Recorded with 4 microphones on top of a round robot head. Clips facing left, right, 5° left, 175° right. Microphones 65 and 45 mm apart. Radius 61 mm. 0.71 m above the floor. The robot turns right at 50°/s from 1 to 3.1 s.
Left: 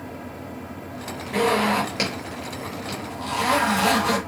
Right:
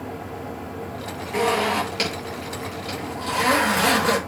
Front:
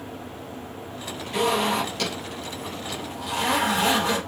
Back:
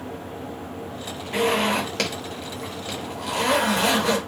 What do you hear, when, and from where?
1.3 s a zipper: 130° left, 7.5 m; by 4.2 s 140° right, 7.5 m